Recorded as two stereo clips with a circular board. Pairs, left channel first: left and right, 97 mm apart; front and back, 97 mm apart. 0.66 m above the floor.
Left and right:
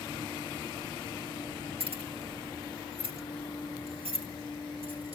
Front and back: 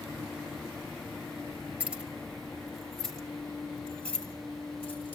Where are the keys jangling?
105° right, 1.7 m; by 5.2 s 75° right, 4.5 m.